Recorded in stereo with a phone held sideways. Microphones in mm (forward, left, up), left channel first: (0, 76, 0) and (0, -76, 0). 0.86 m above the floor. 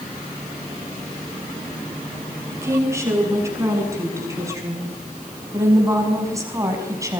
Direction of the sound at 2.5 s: 20° right (ahead or behind).